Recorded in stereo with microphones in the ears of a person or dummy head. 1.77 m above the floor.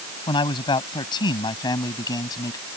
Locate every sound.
0.3 s a man speaking: 25° left (ahead or behind)